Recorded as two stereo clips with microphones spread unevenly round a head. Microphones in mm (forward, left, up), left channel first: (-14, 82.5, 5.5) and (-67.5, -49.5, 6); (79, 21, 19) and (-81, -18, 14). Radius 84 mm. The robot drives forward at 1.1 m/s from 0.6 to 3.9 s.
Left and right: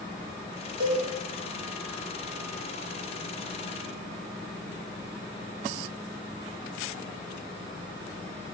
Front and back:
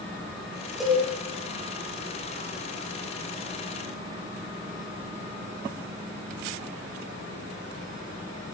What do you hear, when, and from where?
0.8 s a cowbell: 80° right, 1.3 m; by 1.0 s 90° right, 1.3 m